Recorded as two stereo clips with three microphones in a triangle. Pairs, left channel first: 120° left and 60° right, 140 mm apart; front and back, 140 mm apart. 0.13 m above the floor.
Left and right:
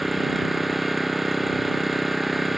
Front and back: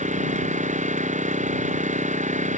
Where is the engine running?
150° right.